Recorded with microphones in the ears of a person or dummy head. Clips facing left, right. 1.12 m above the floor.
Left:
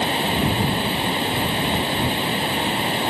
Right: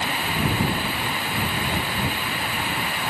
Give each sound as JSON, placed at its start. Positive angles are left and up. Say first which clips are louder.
{"t": 0.0, "sound": "running water", "louder": "left 5 dB", "side_deg": 25}